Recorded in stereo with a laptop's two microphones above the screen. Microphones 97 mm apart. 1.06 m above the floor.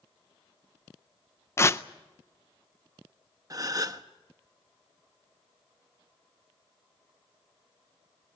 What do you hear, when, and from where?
1.6 s tearing paper: 25° left (ahead or behind), 0.5 m
3.5 s a gasp: 35° right (ahead or behind), 1.0 m